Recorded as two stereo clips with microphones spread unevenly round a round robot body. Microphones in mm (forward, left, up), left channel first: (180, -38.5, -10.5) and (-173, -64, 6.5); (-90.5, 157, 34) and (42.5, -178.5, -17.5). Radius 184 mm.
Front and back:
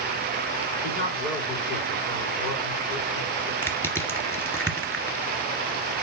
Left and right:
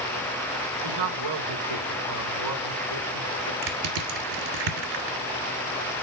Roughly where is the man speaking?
Ahead right.